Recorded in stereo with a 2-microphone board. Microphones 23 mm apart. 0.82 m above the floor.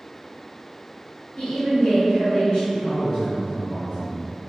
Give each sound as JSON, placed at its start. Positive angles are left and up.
{"t": 1.4, "sound": "a woman speaking", "side_deg": 65, "distance_m": 1.9}
{"t": 2.7, "sound": "a man speaking", "side_deg": 50, "distance_m": 1.2}